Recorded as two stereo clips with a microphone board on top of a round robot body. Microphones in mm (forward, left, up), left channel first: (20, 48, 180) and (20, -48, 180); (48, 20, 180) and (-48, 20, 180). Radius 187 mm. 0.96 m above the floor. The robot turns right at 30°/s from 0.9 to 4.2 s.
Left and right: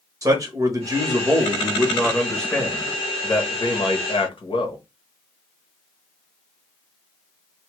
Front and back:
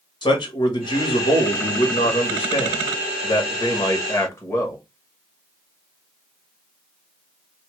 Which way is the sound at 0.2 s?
35° right.